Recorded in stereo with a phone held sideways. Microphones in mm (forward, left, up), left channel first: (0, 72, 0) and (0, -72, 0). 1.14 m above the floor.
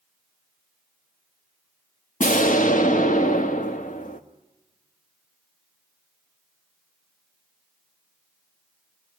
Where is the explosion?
80° left, 1.1 m.